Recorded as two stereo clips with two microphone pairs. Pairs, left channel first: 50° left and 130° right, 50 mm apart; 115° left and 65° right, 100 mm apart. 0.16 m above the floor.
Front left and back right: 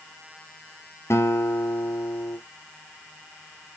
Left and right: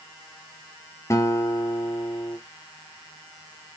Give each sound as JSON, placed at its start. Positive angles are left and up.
{"t": 1.1, "sound": "a guitar", "azimuth_deg": 60, "distance_m": 1.5}